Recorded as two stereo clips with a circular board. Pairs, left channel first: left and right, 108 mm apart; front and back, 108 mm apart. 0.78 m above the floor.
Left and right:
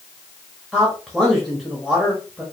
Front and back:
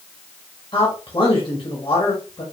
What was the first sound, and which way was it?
A man speaking, straight ahead.